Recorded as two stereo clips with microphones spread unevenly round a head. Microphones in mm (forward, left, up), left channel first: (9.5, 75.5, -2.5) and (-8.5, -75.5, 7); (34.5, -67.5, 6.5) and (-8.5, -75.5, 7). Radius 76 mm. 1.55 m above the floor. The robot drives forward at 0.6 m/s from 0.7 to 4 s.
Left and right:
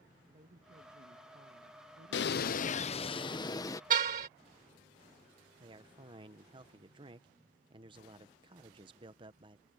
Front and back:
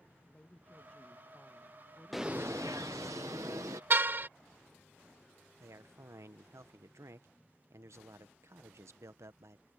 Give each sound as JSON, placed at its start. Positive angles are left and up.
{"t": 0.3, "sound": "a woman speaking", "azimuth_deg": -50}
{"t": 2.1, "sound": "a bird", "azimuth_deg": 100}
{"t": 3.9, "sound": "a car horn", "azimuth_deg": -135}
{"t": 5.6, "sound": "a man speaking", "azimuth_deg": -160}